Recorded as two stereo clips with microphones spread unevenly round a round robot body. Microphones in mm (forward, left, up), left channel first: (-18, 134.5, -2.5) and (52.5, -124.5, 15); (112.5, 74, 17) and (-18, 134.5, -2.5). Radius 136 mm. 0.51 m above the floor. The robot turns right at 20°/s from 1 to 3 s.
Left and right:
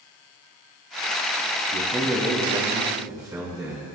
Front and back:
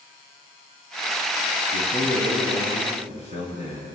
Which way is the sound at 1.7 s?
Straight behind.